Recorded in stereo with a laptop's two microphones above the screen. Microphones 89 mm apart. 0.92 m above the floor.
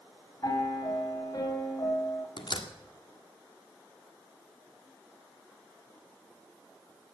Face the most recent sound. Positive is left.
turn(degrees=60)  # may be behind; listen again after turning